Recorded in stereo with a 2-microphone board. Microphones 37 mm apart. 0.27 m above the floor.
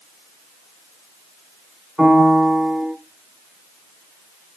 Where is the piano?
Centre (ahead or behind), 0.6 m.